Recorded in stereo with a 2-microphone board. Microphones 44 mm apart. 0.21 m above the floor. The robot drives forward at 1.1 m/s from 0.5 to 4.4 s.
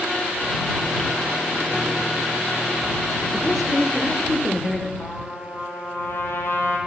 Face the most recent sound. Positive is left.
turn(degrees=60)  # may be behind; listen again after turning